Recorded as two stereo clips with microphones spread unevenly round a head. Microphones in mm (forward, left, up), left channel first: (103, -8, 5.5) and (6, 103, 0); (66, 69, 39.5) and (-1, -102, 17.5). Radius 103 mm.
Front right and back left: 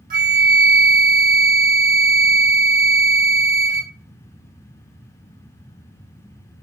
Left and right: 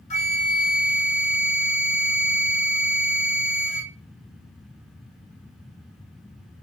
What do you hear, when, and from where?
0.1 s a flute: 125° left, 1.1 m